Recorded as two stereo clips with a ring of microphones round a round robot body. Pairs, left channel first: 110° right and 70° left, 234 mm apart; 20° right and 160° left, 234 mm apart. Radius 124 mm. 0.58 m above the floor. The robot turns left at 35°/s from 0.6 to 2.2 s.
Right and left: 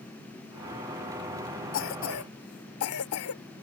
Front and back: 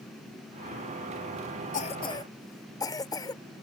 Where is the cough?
80° right; by 3.4 s 95° right.